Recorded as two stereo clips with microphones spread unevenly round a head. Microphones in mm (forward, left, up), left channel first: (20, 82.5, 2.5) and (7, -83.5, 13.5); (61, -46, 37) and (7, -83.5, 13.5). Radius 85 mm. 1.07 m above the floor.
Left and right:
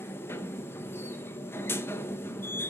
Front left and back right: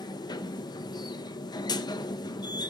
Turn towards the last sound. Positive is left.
turn(degrees=10)